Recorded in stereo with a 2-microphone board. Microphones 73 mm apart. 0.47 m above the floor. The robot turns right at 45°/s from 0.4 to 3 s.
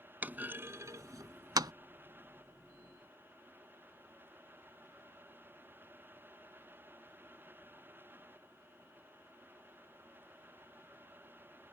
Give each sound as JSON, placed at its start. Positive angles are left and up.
{"t": 0.2, "sound": "a clunk", "side_deg": -25}